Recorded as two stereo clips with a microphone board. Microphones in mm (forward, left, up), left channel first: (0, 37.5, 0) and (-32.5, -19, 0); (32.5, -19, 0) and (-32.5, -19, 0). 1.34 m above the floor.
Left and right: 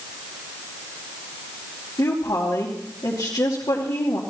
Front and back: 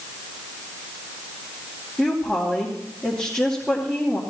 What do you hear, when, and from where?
2.0 s a woman speaking: 90° left, 2.5 m